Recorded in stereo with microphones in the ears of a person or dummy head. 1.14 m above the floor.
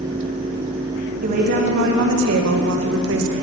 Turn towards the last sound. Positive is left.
turn(degrees=-70)  # may be behind; listen again after turning